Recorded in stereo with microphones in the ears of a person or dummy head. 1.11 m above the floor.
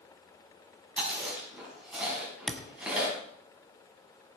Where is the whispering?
No whispering in this recording.